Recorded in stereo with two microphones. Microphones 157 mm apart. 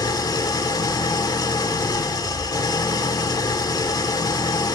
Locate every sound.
0.0 s an engine running: 25° left (ahead or behind), 1.1 m